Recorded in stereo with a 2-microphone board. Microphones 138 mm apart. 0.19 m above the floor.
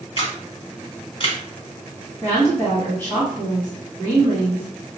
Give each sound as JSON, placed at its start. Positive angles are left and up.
{"t": 0.2, "sound": "a camera shutter", "side_deg": 40, "distance_m": 1.1}
{"t": 2.2, "sound": "a woman speaking", "side_deg": 20, "distance_m": 1.4}